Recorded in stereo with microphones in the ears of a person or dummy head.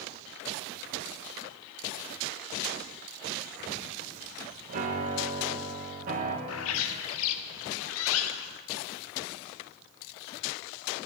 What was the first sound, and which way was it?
A piano, 45° right (ahead or behind).